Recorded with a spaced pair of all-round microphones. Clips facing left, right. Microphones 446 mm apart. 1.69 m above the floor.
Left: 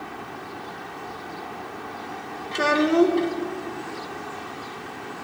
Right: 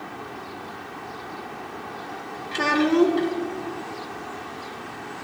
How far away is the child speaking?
About 0.6 m.